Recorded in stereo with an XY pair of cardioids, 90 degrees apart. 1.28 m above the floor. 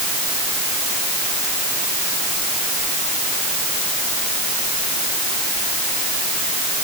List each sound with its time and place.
Only background noise.